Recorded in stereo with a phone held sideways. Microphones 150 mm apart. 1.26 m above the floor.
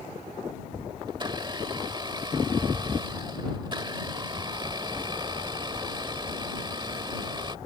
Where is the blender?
30° right (ahead or behind).